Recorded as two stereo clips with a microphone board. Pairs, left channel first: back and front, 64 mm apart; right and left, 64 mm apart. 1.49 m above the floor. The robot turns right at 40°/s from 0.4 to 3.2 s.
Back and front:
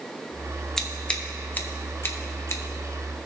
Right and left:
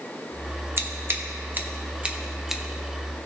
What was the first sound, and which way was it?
Scissors, 100° left.